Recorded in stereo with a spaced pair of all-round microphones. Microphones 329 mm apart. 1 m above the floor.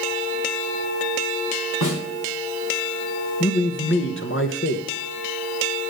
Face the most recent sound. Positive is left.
turn(degrees=35)  # may be behind; listen again after turning